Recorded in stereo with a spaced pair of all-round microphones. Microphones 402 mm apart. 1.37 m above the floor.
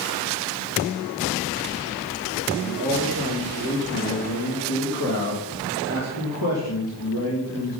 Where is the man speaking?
60° left (ahead or behind), 2.5 m.